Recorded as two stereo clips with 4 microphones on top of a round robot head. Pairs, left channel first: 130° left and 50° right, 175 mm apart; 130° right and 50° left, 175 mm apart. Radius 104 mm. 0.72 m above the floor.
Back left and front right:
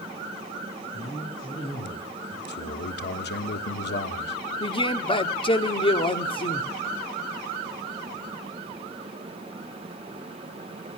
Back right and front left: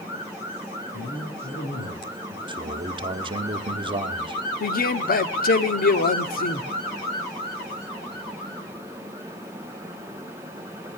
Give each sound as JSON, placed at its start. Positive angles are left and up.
{"t": 0.9, "sound": "a man speaking", "azimuth_deg": -165, "distance_m": 9.0}
{"t": 2.5, "sound": "a man speaking", "azimuth_deg": 110, "distance_m": 1.4}
{"t": 4.6, "sound": "a man speaking", "azimuth_deg": -165, "distance_m": 1.5}